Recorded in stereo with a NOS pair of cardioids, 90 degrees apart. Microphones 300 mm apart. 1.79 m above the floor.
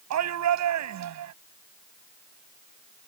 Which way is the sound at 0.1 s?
65° right.